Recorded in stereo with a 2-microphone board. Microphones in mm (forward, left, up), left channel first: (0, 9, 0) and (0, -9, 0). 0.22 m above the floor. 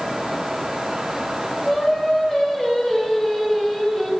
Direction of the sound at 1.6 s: 35° left (ahead or behind).